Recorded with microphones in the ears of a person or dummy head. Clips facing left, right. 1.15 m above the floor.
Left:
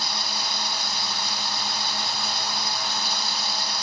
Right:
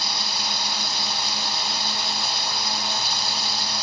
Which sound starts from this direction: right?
Running water, at 0.0 s.